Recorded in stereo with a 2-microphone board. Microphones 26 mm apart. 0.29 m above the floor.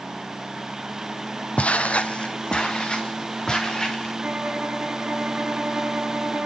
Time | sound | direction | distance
1.6 | footsteps | 60° left (ahead or behind) | 0.6 m
4.2 | a violin | 65° right (ahead or behind) | 3 m